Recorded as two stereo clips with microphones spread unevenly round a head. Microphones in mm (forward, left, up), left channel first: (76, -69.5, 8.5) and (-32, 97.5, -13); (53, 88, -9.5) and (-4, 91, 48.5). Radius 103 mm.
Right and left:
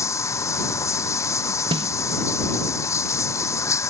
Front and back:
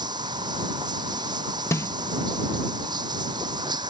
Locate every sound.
0.0 s running water: 135° right
1.7 s a snare drum: 55° left